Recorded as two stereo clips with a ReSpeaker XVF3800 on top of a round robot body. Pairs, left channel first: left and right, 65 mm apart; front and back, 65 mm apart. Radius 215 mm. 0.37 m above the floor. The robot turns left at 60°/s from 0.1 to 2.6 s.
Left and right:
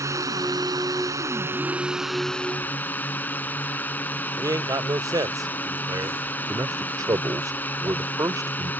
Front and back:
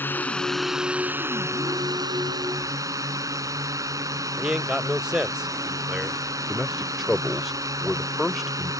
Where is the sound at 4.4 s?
100° right.